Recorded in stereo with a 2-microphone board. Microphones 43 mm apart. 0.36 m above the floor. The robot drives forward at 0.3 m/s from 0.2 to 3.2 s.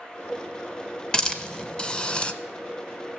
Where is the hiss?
15° left (ahead or behind), 0.9 m; by 2.3 s 25° left (ahead or behind), 0.6 m.